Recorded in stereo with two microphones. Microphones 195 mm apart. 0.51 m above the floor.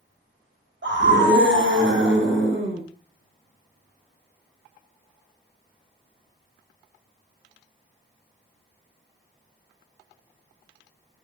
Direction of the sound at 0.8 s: 80° right.